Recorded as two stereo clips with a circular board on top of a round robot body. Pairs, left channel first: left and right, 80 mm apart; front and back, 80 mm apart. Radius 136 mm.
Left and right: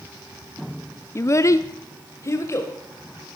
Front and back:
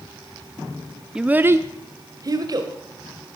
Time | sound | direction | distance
1.1 | a child speaking | 105° left | 0.8 m